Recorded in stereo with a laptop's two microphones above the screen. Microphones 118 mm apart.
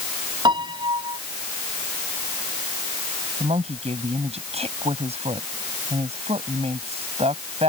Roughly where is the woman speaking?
Right.